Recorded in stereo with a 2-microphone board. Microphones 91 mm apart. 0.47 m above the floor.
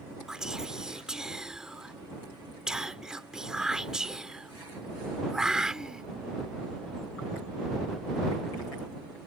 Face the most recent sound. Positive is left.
turn(degrees=-5)  # may be behind; listen again after turning